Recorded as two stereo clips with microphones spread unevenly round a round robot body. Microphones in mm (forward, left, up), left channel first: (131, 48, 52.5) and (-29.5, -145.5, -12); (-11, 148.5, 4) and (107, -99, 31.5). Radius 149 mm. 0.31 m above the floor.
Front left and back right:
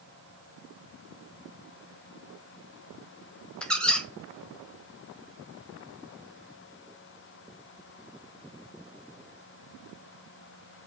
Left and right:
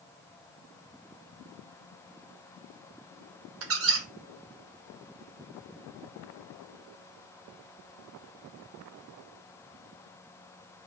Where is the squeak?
50° right, 0.7 m.